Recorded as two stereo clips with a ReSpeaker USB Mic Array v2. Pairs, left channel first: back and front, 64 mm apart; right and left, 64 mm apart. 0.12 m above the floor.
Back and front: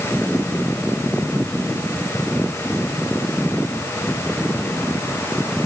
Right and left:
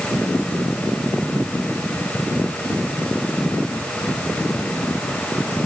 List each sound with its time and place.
Only background noise.